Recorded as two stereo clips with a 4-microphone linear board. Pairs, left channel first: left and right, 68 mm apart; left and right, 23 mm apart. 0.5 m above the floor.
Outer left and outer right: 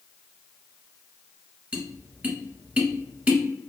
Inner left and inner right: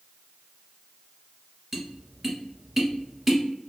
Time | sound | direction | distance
1.7 | tapping | 20° right (ahead or behind) | 1.0 m